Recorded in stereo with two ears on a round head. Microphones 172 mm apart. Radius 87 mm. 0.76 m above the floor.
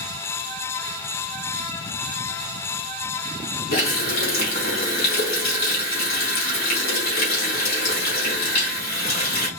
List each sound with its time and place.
3.7 s a running tap: 50° left (ahead or behind), 2.5 m